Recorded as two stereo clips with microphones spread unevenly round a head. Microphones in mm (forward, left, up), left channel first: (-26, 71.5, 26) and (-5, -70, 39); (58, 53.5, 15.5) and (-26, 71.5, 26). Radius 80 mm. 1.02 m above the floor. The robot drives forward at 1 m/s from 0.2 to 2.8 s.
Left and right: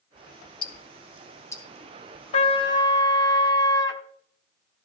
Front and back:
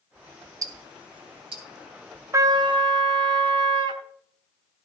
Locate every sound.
0.6 s ticking: 150° left, 0.7 m; by 1.6 s 170° left, 1.5 m
2.3 s a trumpet: 140° left, 0.6 m; by 4.0 s 160° left, 0.9 m